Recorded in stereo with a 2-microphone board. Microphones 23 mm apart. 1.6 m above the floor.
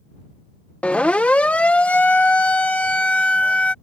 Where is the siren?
70° left (ahead or behind); by 3.7 s 80° left.